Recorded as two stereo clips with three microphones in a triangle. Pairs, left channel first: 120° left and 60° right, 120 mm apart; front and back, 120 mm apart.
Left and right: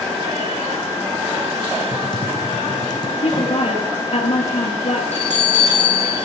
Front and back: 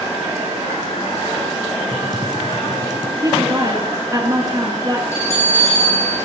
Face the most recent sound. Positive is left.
turn(degrees=-65)